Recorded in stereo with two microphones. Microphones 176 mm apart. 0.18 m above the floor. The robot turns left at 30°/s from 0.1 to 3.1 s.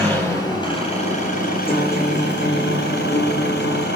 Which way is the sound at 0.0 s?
170° left.